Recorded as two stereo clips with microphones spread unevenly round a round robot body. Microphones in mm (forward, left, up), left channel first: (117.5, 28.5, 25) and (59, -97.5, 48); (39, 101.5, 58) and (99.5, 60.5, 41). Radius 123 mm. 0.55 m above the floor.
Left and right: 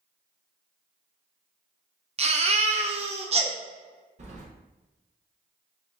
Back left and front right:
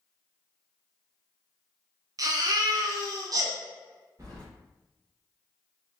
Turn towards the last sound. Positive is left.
turn(degrees=-75)